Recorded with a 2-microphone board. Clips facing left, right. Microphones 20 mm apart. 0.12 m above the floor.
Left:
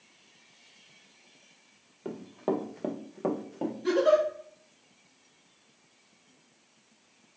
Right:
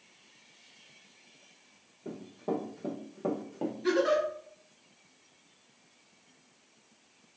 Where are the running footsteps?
85° left, 0.9 m; by 3.7 s 5° right (ahead or behind), 0.7 m.